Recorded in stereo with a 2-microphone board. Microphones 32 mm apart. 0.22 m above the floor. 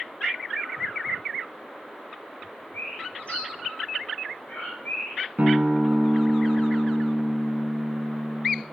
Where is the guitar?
55° right (ahead or behind), 0.6 m.